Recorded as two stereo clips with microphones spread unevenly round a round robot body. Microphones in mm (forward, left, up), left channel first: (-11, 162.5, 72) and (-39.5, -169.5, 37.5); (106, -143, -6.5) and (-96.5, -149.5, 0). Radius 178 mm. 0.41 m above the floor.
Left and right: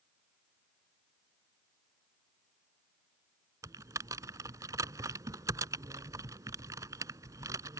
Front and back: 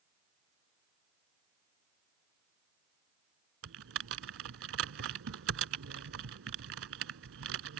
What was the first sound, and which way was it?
Typing on a keyboard, 175° right.